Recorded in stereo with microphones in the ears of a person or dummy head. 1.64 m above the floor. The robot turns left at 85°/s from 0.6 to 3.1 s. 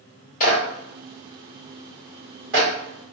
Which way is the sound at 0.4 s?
45° left (ahead or behind).